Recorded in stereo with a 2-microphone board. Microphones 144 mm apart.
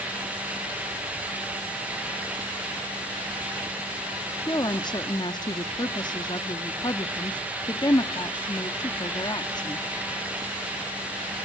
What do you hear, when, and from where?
4.5 s a woman speaking: 30° left (ahead or behind), 0.8 m